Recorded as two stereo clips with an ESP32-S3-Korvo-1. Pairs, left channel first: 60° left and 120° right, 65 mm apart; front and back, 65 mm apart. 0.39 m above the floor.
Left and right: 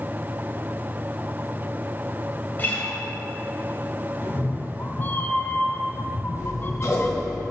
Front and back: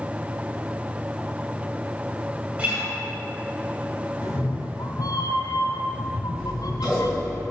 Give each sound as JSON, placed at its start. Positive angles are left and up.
{"t": 2.6, "sound": "a guitar", "azimuth_deg": 115, "distance_m": 2.5}
{"t": 4.2, "sound": "a cat meowing", "azimuth_deg": 5, "distance_m": 1.0}
{"t": 6.3, "sound": "scissors", "azimuth_deg": 105, "distance_m": 3.0}